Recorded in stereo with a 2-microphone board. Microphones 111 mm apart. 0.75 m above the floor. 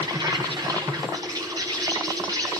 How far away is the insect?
About 1.3 m.